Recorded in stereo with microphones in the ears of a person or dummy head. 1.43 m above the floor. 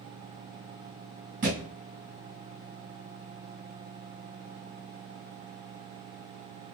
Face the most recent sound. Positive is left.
turn(degrees=-45)  # may be behind; listen again after turning